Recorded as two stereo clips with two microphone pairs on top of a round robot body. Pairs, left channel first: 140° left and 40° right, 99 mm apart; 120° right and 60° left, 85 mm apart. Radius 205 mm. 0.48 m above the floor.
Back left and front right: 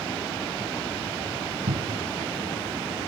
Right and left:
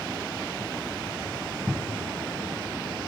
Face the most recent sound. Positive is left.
turn(degrees=-25)